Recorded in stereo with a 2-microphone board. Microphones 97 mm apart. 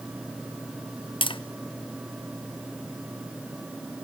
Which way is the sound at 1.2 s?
60° left (ahead or behind).